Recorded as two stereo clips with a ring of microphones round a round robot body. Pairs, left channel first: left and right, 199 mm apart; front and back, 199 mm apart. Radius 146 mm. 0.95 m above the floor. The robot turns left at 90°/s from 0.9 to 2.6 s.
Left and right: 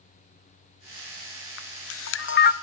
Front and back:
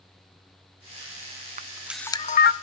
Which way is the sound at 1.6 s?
125° left.